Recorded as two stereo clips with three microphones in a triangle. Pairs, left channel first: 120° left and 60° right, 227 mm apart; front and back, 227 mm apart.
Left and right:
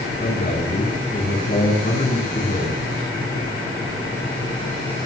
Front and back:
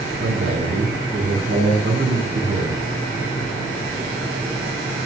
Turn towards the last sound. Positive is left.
turn(degrees=160)